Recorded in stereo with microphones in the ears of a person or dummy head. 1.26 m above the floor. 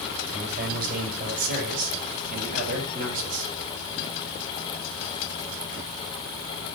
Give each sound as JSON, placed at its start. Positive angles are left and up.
{"t": 0.3, "sound": "a man speaking", "side_deg": -50, "distance_m": 7.0}